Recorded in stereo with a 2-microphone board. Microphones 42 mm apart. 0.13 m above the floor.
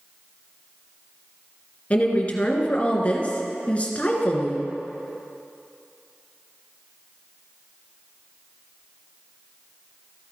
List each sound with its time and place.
1.9 s a woman speaking: 30° left (ahead or behind), 1.4 m